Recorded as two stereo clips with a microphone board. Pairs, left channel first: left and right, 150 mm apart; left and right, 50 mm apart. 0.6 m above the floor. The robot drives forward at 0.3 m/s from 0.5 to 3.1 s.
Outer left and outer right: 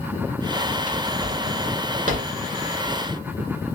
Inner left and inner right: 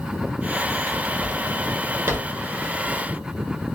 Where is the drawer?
55° right (ahead or behind), 1.6 m; by 2.4 s 65° right (ahead or behind), 1.4 m.